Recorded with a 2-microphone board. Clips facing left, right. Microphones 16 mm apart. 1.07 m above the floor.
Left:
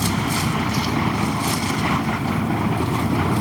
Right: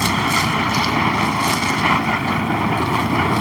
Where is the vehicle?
75° right (ahead or behind).